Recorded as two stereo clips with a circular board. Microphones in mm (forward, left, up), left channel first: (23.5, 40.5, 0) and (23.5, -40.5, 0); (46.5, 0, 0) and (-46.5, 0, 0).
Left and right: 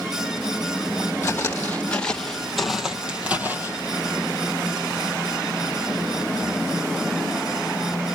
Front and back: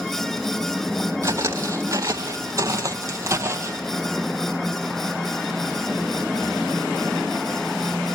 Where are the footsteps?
140° left, 2.5 m; by 3.8 s 135° right, 2 m.